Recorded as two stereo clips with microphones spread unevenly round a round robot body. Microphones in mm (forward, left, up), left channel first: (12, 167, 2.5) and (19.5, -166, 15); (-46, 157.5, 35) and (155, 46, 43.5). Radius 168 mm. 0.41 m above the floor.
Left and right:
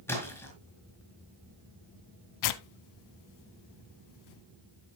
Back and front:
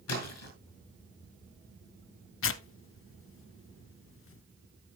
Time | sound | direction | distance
0.1 | a splash | 175° left | 4.5 m
2.4 | tearing paper | 115° left | 0.7 m